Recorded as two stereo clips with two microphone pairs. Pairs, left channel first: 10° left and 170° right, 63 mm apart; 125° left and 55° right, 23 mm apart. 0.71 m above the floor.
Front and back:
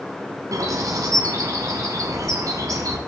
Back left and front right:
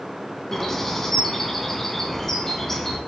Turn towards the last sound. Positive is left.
turn(degrees=-160)